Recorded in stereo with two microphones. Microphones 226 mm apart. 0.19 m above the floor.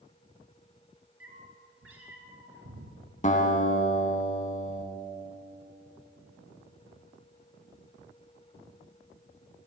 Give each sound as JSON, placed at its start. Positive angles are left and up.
{"t": 1.2, "sound": "a cat meowing", "side_deg": -65, "distance_m": 1.5}
{"t": 3.2, "sound": "a guitar", "side_deg": 30, "distance_m": 1.1}